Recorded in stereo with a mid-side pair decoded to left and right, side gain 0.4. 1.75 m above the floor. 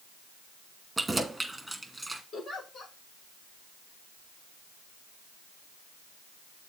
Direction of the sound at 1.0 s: 15° right.